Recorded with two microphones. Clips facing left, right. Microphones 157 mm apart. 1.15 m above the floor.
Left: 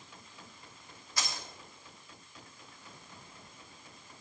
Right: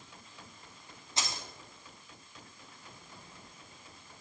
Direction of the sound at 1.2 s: 25° right (ahead or behind).